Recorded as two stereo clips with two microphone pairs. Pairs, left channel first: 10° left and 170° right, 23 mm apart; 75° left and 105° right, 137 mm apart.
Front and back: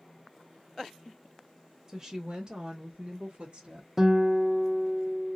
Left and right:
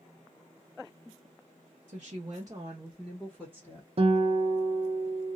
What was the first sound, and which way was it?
A woman speaking, 105° right.